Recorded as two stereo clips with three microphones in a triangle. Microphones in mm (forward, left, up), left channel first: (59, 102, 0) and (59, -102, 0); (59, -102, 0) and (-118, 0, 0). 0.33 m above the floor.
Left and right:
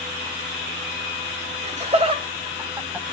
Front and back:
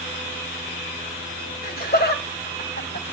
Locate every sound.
1.6 s laughter: 50° right, 1.9 m; by 3.1 s 5° right, 2 m